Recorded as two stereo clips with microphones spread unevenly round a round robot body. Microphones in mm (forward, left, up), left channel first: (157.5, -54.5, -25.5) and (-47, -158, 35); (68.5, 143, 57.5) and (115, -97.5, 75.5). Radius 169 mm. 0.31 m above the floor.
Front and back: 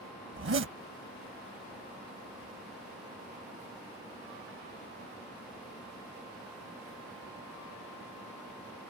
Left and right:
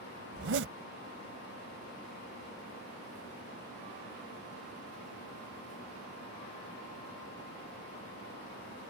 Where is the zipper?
120° right.